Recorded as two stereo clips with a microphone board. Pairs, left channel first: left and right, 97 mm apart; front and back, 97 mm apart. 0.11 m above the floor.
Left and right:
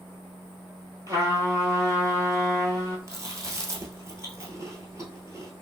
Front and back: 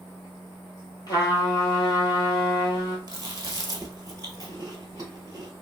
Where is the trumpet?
40° right, 1.0 m.